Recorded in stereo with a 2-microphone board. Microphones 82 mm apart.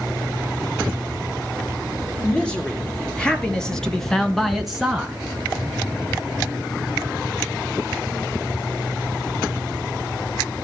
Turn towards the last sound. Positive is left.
turn(degrees=-5)  # may be behind; listen again after turning